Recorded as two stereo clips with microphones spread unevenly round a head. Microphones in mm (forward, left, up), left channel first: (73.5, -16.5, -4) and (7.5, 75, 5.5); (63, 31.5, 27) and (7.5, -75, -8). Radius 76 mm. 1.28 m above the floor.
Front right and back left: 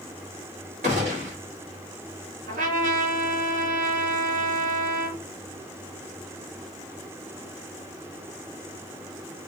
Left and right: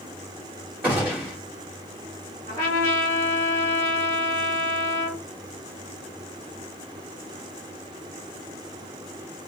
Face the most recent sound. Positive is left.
turn(degrees=125)